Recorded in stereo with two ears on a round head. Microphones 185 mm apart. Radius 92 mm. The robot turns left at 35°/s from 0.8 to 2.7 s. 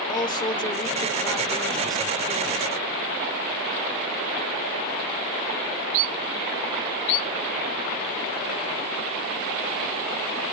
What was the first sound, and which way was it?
A man speaking, 40° left.